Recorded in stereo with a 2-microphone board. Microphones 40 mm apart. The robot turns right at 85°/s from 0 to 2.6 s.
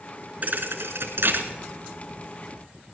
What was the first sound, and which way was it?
A thud, 140° right.